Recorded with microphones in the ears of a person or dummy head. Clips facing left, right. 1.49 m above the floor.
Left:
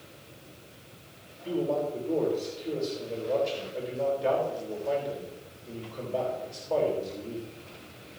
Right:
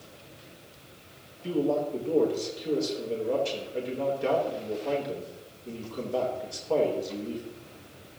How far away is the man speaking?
About 4 m.